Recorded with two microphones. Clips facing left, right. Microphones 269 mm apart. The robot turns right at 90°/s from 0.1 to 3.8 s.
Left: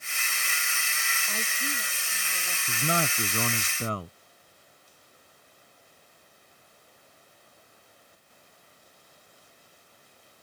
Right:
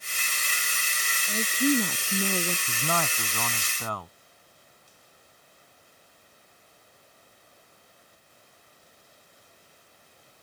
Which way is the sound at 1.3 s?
165° right.